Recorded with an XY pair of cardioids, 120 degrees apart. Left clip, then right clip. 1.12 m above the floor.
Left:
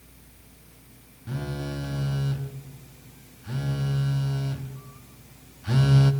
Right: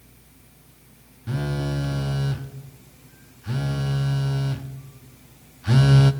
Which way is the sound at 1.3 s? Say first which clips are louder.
Right 5 dB; 30° right.